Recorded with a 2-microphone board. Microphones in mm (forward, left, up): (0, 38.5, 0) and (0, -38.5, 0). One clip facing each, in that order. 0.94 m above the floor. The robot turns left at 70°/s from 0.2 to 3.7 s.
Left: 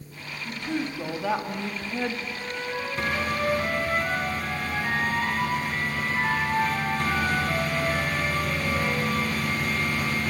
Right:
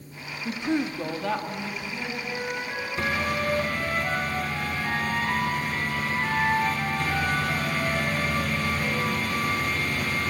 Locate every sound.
0.5 s a woman speaking: 130° right, 1.7 m; by 2.2 s 110° left, 1.7 m
2.3 s a flute: 120° right, 5.5 m; by 9.2 s 140° left, 5.5 m